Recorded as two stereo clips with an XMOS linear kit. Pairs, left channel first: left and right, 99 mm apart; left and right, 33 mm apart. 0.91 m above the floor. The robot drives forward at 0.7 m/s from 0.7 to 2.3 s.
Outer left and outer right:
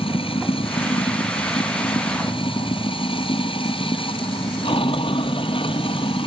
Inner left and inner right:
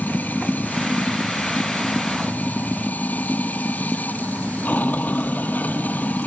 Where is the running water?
65° left (ahead or behind); by 6.3 s 60° left (ahead or behind).